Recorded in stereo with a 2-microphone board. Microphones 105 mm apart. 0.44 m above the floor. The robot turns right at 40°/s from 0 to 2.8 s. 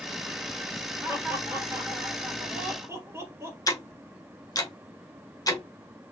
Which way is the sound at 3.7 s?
35° left (ahead or behind).